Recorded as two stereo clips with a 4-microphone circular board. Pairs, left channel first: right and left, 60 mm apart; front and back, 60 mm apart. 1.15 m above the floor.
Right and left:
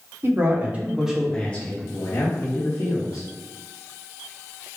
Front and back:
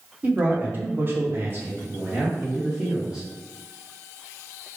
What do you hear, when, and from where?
0.2 s a man speaking: 120° left, 0.9 m; by 3.3 s 105° right, 1.4 m